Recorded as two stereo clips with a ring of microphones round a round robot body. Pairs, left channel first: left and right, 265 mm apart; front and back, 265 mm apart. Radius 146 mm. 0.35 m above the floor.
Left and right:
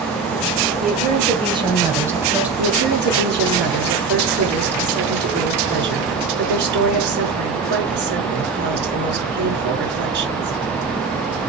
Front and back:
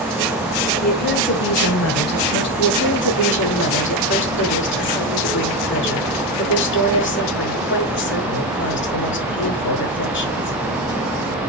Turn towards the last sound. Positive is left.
turn(degrees=-45)